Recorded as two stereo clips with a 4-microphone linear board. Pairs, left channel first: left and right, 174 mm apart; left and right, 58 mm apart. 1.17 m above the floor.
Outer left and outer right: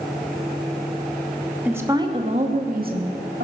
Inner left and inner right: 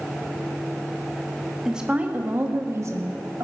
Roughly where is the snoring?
No snoring in this recording.